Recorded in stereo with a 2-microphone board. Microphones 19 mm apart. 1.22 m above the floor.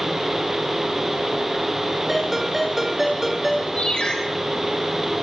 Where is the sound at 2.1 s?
10° right (ahead or behind), 6 m.